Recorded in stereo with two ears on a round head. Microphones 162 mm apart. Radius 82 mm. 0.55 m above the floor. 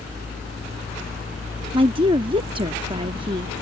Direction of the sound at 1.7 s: 30° right (ahead or behind).